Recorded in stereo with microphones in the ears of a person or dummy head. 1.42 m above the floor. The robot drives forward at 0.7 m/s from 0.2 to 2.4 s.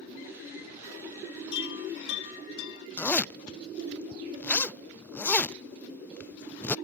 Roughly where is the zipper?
Centre.